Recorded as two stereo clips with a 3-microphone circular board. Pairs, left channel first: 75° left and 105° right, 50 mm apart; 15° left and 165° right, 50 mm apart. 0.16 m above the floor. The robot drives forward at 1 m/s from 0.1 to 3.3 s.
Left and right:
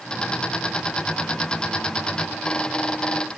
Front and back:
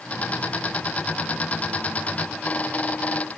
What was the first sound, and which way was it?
Only background noise.